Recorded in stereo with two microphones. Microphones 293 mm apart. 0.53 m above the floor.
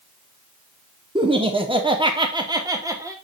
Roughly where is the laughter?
Centre.